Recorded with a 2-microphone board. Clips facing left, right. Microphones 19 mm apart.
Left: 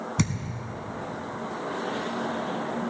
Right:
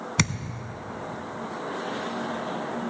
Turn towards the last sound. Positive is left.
turn(degrees=-40)  # may be behind; listen again after turning